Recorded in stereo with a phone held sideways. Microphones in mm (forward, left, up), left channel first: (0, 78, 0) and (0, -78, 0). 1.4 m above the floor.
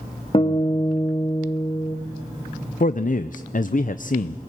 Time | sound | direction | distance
0.3 | a guitar | 40° left (ahead or behind) | 2.5 m
2.8 | a man speaking | 60° left (ahead or behind) | 0.6 m